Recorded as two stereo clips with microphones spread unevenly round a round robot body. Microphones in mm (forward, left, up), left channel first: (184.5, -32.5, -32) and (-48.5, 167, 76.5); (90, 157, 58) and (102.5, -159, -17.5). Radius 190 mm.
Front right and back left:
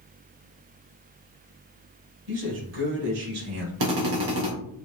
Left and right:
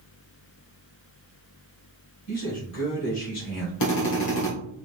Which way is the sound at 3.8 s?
135° left.